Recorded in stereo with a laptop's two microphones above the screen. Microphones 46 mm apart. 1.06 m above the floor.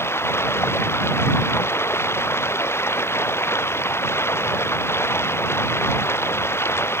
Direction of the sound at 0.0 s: 65° left (ahead or behind).